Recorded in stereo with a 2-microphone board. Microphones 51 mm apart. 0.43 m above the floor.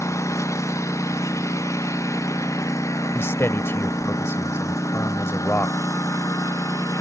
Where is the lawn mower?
75° left (ahead or behind); by 7.0 s 90° left.